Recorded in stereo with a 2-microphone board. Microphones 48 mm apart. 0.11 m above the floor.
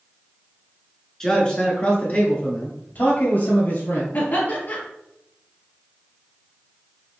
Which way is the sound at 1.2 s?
15° left (ahead or behind).